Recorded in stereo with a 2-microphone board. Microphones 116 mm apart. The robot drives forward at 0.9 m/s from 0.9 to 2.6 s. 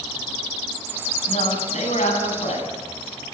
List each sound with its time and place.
1.3 s a man speaking: 85° left, 7.5 m; by 2.7 s 80° left, 7.5 m